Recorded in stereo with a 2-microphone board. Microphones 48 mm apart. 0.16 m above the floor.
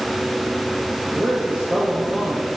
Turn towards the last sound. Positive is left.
turn(degrees=-25)  # may be behind; listen again after turning